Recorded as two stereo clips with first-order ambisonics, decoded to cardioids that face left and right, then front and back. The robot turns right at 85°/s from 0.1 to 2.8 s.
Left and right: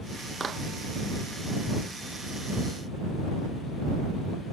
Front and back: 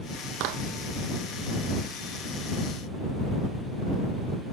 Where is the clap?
165° right; by 0.6 s 145° right.